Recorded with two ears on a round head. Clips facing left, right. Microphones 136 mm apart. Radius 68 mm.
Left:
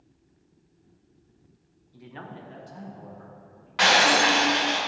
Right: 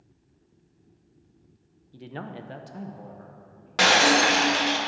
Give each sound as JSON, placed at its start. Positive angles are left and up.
{"t": 1.9, "sound": "a man speaking", "side_deg": -30, "distance_m": 0.6}
{"t": 3.8, "sound": "breaking glass", "side_deg": -50, "distance_m": 1.1}